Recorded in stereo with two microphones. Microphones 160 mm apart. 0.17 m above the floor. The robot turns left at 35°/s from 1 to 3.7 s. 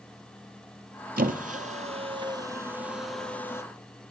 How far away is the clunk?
I don't hear a clunk.